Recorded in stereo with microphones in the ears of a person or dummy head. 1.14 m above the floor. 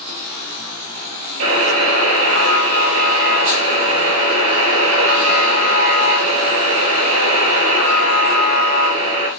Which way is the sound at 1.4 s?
75° right (ahead or behind).